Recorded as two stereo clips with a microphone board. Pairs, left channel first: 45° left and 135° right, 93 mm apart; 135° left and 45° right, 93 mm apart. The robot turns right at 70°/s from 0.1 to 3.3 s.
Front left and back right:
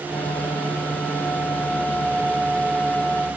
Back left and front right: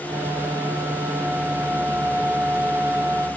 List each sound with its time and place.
Only background noise.